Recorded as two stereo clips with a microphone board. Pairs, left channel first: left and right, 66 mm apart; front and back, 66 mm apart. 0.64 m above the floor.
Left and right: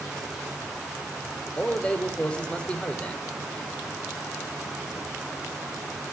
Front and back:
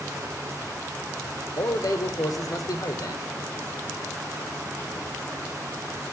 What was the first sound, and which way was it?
A man speaking, 15° left.